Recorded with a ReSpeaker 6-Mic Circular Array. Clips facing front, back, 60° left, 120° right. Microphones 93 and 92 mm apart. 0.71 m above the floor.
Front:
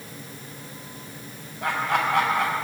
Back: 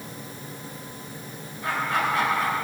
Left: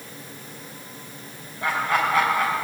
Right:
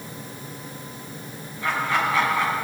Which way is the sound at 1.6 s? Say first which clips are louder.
Front 1 dB, left 1 dB; 15° left.